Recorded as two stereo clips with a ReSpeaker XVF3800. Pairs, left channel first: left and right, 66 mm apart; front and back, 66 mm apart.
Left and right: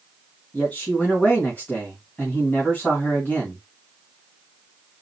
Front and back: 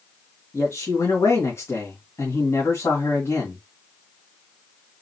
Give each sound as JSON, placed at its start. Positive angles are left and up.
{"t": 0.5, "sound": "a man speaking", "azimuth_deg": 30, "distance_m": 2.0}